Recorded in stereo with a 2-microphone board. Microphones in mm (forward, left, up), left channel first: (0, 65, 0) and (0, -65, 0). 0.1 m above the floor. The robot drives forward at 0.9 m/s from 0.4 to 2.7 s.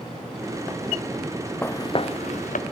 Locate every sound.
1.6 s footsteps: 15° left (ahead or behind), 0.5 m; by 2.6 s 85° left, 0.8 m